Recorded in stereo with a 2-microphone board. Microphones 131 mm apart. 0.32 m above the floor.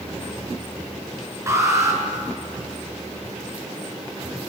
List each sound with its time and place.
1.5 s an alarm: 20° right (ahead or behind), 6.5 m